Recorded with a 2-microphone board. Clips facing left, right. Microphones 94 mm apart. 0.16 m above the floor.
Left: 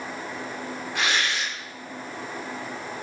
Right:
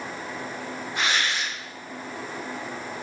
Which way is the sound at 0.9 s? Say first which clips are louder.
Even; 70° left (ahead or behind).